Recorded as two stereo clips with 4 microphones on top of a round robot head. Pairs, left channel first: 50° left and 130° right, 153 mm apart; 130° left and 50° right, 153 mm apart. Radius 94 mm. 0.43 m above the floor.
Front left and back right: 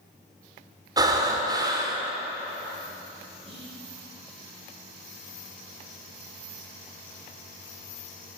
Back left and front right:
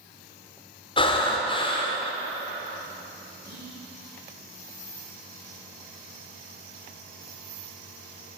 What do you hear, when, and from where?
1.0 s breathing: 175° left, 1.3 m
3.5 s whispering: 75° right, 2.5 m